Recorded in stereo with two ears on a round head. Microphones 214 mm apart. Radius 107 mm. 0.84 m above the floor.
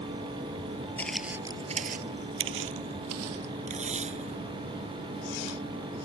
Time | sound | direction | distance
1.0 | footsteps | 10° left (ahead or behind) | ?
3.7 | tape being pulled | 30° right (ahead or behind) | ?